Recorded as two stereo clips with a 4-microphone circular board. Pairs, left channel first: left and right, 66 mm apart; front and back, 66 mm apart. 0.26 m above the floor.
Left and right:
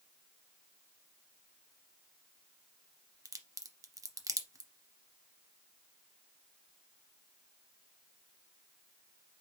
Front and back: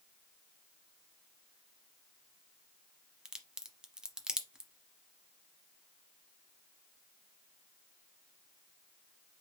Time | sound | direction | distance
3.2 | a crack | 100° right | 0.8 m